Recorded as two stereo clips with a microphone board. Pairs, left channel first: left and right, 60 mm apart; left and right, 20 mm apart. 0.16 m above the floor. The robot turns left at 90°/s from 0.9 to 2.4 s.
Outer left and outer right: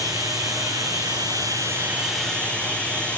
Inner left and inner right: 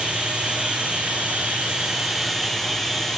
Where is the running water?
65° right, 7 m; by 3.2 s 160° left, 7 m.